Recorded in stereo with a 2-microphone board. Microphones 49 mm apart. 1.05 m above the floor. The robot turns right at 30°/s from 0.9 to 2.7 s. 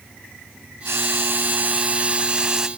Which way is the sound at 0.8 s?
60° right.